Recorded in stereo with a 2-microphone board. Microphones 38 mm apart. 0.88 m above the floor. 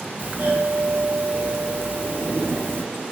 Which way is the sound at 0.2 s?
65° right (ahead or behind).